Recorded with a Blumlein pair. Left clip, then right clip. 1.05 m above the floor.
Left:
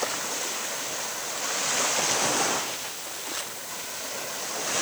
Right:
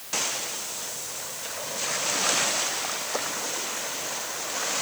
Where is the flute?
I don't hear a flute.